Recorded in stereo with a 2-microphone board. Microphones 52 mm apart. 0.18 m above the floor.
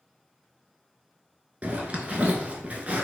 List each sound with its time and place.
1.6 s a zipper: 30° right (ahead or behind), 0.7 m